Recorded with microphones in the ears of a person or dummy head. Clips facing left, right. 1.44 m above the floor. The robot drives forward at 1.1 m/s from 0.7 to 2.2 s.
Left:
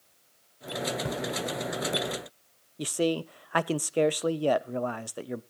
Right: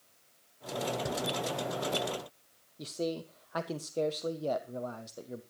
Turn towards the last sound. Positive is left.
turn(degrees=80)